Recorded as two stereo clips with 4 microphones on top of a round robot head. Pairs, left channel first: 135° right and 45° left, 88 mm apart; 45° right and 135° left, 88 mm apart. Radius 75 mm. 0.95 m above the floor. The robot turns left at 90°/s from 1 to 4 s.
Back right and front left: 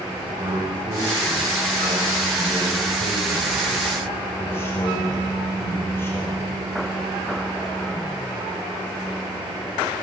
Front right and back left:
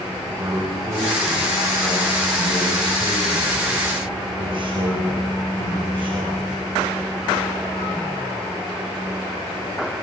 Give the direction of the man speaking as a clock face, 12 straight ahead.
10 o'clock.